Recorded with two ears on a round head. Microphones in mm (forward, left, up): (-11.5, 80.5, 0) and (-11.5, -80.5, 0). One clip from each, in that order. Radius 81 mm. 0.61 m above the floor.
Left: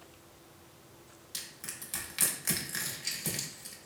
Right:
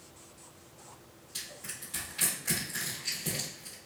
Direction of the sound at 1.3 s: 60° left (ahead or behind).